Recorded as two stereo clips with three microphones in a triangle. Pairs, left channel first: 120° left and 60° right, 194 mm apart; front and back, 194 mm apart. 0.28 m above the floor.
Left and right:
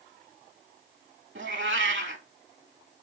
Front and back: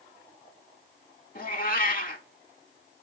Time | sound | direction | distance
1.4 | a cat meowing | 45° right | 0.6 m